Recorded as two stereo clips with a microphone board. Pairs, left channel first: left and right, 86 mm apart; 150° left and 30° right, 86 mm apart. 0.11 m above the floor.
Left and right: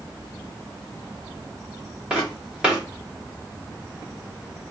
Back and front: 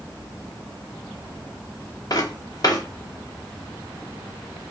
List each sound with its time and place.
2.1 s footsteps: 170° right, 2.5 m